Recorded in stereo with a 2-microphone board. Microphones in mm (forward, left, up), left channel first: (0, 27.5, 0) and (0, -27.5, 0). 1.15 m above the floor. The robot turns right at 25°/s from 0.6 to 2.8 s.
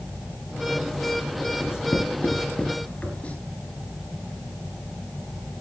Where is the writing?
50° left (ahead or behind), 5.5 m; by 3.4 s 20° left (ahead or behind), 5.5 m.